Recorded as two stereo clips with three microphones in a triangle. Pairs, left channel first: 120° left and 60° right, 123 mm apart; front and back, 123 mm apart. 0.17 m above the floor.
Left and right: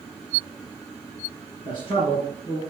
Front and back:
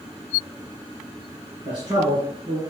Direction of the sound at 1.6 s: 155° left.